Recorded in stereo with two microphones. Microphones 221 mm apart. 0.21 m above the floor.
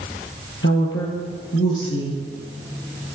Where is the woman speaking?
60° left (ahead or behind), 5.5 m.